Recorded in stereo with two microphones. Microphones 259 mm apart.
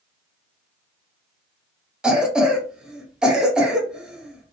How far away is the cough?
About 0.7 m.